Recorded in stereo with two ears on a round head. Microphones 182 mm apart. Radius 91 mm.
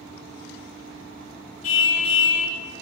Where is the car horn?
70° left (ahead or behind), 5.5 m.